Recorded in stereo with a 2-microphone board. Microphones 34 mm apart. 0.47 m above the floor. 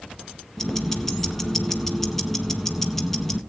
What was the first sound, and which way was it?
Ticking, 10° left (ahead or behind).